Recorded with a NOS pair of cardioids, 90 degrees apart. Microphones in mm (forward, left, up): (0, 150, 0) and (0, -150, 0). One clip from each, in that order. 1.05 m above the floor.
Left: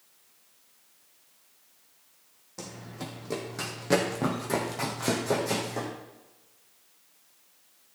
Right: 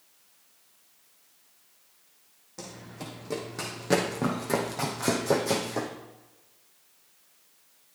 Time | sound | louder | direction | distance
2.6 | running footsteps | left 1 dB | 10° left | 3.5 m